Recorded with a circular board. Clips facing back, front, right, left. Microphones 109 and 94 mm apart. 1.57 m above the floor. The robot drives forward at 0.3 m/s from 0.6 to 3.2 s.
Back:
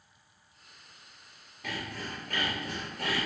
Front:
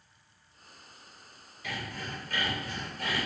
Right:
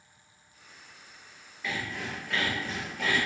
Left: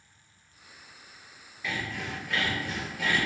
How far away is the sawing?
About 1.8 m.